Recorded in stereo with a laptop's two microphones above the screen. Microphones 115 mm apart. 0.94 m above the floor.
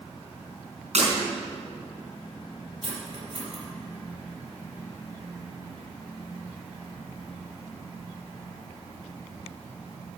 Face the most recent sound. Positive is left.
turn(degrees=-45)  # may be behind; listen again after turning